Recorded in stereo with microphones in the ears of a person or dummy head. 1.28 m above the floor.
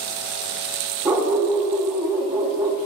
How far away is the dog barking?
About 0.9 m.